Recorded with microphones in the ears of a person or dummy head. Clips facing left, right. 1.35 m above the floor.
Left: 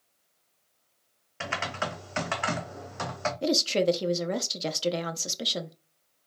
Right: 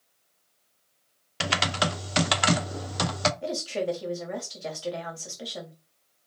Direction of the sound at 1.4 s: 55° right (ahead or behind).